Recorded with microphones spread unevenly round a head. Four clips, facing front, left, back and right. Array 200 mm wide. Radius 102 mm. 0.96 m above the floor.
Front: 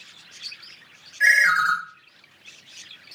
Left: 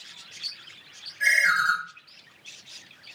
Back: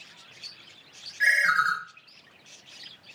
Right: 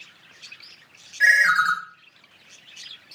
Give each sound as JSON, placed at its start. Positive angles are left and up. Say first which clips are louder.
{"t": 1.2, "sound": "a ringtone", "louder": "right 4 dB, front 4 dB", "azimuth_deg": -115, "distance_m": 1.5}